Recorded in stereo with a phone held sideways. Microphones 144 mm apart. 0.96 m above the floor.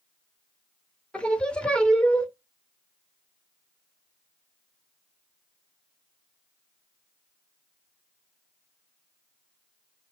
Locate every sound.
1.1 s singing: 10° left (ahead or behind), 0.5 m